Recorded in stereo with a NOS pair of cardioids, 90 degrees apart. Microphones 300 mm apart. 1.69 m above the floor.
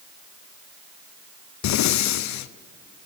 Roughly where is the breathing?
Ahead left.